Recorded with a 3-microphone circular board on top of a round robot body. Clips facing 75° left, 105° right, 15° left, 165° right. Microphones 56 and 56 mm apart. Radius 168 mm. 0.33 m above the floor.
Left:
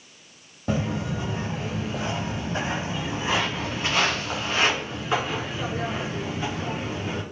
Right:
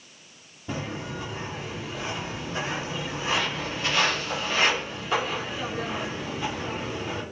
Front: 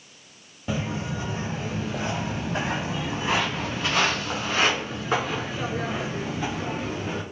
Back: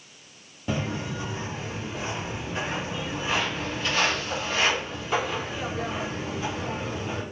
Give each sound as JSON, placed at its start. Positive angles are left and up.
{"t": 0.7, "sound": "footsteps", "azimuth_deg": 105, "distance_m": 0.5}